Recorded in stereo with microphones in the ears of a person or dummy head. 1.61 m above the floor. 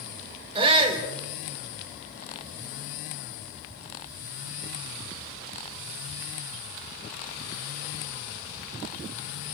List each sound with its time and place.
0.6 s a shout: 30° right (ahead or behind), 4.5 m